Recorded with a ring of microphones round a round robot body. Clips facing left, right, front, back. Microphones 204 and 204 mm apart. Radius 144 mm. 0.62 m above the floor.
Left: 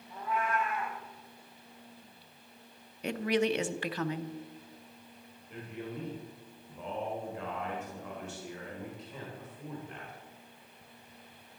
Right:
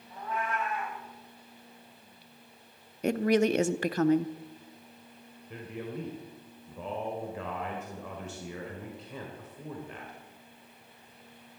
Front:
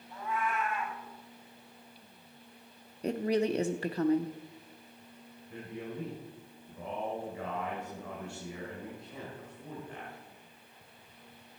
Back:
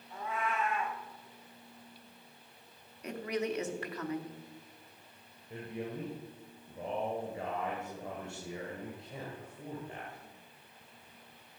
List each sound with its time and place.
0.1 s a cat meowing: 175° left, 7.5 m
3.0 s a woman speaking: 55° right, 0.8 m
5.5 s a man speaking: 105° right, 3 m